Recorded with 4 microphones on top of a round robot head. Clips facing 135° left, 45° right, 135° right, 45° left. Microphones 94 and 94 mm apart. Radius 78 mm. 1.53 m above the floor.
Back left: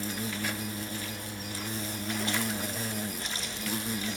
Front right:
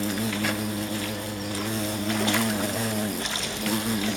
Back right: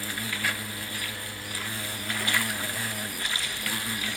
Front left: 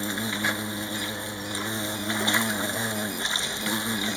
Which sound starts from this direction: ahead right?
An insect, at 0.0 s.